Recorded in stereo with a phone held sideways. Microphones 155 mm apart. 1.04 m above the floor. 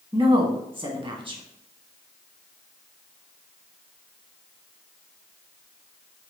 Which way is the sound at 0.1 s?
35° right (ahead or behind).